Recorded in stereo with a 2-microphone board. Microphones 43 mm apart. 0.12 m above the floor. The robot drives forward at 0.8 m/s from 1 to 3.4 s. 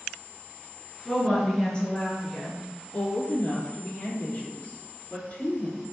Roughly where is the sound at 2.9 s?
Left.